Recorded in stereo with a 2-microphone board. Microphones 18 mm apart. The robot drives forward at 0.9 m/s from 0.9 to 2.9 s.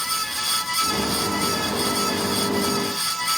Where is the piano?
I don't hear a piano.